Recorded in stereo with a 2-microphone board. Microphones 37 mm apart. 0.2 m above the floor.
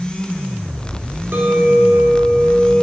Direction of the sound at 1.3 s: 65° right (ahead or behind).